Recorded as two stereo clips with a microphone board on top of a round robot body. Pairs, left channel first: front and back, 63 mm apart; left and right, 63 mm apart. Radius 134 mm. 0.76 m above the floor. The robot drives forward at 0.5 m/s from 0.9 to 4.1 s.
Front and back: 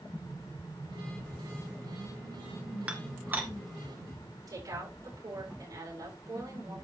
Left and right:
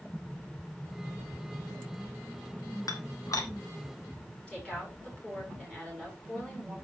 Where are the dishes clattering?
110° left, 1.7 m; by 3.5 s 120° left, 1.8 m.